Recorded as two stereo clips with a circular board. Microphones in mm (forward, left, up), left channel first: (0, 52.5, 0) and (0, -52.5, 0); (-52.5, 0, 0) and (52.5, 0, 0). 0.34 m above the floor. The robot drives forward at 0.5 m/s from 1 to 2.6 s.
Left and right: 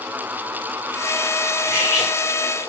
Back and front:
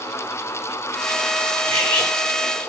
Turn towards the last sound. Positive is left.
turn(degrees=55)